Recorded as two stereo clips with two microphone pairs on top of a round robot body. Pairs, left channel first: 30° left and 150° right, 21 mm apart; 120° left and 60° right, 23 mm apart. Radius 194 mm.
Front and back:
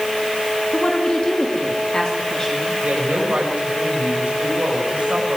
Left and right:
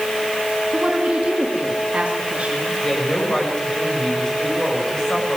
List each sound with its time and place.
0.7 s a woman speaking: 20° right, 2.5 m; by 2.7 s 30° right, 4 m
2.8 s a woman speaking: straight behind, 6.5 m